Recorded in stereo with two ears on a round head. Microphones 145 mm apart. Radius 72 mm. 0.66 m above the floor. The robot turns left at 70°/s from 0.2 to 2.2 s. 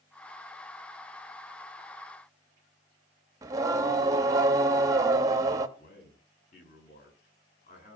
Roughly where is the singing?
Right.